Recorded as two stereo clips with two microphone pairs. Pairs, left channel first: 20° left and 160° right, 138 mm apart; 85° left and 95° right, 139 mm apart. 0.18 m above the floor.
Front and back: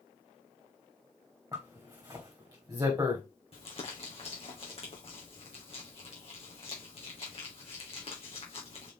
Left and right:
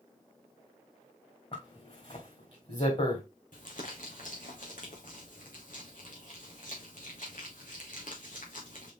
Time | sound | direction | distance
1.5 | a zipper | 135° left | 3.5 m
3.5 | crumpling | 65° left | 2.5 m